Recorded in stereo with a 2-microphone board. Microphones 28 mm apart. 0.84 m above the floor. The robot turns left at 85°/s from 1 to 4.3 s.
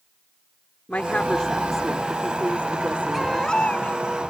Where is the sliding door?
I don't hear a sliding door.